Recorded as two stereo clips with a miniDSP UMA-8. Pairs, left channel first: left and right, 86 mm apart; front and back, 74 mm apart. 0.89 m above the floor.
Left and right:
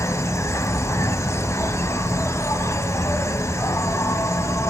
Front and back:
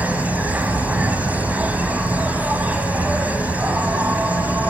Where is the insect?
120° left, 0.9 m.